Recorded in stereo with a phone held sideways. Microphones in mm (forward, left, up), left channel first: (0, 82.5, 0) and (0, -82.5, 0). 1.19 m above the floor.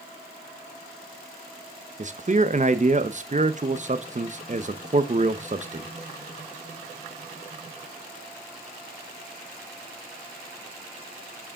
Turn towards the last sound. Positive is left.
turn(degrees=-45)  # may be behind; listen again after turning